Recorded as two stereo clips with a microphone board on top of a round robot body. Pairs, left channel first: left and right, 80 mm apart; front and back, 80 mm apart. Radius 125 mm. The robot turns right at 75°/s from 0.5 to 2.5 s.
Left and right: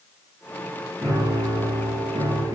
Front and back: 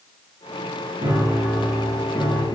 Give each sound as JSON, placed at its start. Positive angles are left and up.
{"t": 1.0, "sound": "a piano", "azimuth_deg": -150, "distance_m": 7.0}